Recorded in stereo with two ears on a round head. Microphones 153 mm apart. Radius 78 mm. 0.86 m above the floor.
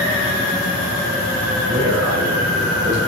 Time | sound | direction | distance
1.7 | a man speaking | 85° right | 5 m